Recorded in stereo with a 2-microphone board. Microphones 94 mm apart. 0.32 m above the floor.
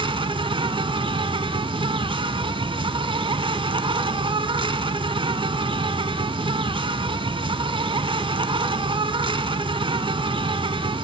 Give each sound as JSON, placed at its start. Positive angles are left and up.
{"t": 0.0, "sound": "an insect", "side_deg": -65, "distance_m": 0.8}